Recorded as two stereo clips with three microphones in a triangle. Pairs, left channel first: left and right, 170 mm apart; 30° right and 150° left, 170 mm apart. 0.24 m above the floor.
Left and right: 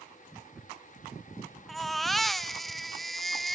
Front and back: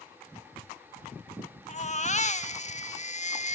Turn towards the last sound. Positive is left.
turn(degrees=0)